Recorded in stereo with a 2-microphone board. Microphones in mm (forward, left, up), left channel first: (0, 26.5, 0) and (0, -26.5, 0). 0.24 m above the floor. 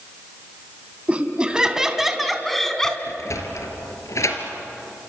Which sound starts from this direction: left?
A sliding door, at 3.1 s.